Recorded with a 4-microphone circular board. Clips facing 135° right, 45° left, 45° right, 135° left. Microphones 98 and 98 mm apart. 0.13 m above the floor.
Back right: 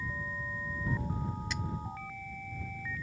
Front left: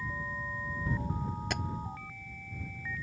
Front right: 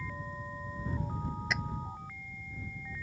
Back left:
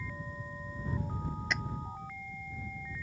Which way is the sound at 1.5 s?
45° left.